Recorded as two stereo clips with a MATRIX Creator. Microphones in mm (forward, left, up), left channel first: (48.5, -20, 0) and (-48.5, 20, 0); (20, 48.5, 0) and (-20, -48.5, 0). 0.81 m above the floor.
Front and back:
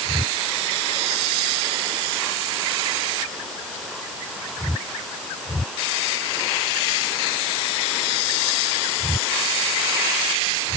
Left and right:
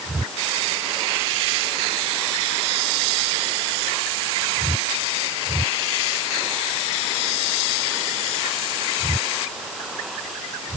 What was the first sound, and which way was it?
Only background noise.